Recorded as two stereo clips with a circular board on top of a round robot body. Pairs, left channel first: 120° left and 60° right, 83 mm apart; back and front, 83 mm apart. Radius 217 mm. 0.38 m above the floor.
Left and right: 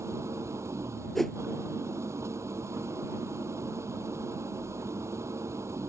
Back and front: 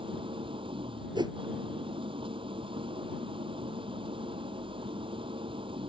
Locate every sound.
0.0 s an engine running: 5° right
1.1 s a whoosh: 35° left